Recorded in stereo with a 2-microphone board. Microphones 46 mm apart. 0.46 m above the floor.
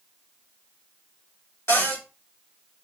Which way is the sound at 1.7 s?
70° left (ahead or behind).